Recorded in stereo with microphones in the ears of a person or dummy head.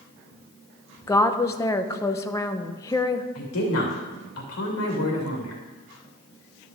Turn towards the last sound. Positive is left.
turn(degrees=80)